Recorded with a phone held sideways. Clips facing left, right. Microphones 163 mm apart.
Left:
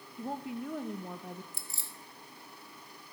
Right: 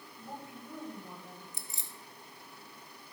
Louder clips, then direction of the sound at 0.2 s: Left 9 dB; 75° left (ahead or behind).